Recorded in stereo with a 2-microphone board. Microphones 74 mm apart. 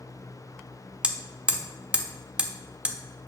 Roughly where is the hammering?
Centre.